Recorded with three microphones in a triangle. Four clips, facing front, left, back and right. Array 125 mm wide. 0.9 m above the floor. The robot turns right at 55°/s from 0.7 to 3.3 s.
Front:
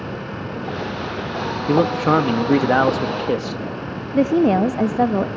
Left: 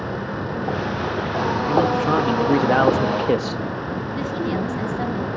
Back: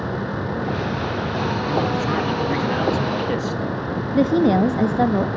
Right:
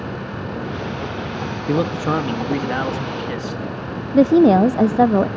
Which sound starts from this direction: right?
A woman speaking, at 4.1 s.